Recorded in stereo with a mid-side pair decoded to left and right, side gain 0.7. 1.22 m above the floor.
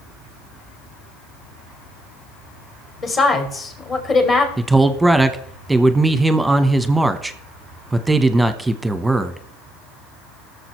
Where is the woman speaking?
35° left, 3 m.